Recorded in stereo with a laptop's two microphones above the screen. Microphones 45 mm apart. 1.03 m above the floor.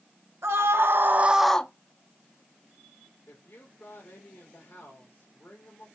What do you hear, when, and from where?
0.4 s a scream: 75° right (ahead or behind), 1.4 m; by 1.7 s 25° left (ahead or behind), 0.6 m
3.3 s a woman speaking: 70° left (ahead or behind), 2.5 m